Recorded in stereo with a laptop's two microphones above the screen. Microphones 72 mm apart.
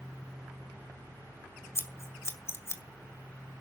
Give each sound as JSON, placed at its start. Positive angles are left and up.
{"t": 1.8, "sound": "scissors", "side_deg": 40, "distance_m": 1.8}